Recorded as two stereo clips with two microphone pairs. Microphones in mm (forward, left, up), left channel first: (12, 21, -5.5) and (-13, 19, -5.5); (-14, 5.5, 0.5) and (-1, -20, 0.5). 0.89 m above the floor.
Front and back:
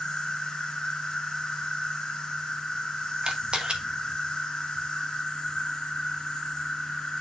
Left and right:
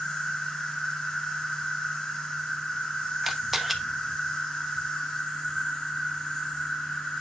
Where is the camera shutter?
145° right, 1.1 m.